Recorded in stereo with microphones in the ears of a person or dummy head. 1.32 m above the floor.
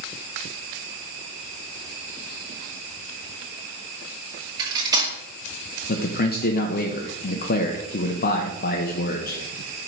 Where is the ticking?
I don't hear ticking.